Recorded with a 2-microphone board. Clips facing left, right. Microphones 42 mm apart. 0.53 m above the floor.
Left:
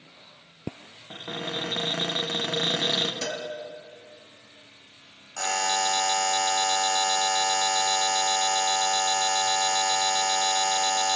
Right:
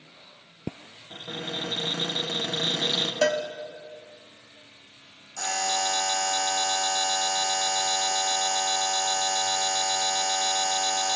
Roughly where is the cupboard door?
Left.